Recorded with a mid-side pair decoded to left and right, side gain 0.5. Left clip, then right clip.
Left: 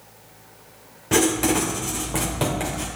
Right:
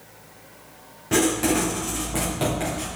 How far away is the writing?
About 2.5 m.